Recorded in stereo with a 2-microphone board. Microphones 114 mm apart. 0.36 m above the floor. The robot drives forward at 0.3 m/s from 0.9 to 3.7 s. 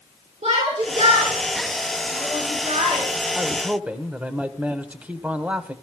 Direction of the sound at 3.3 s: 15° right (ahead or behind).